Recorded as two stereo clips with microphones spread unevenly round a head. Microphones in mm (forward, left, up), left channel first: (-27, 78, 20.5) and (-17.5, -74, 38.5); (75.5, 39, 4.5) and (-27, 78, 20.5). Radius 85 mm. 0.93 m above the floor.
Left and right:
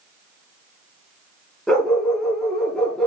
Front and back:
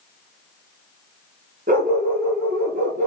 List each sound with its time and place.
1.7 s a dog barking: straight behind, 6 m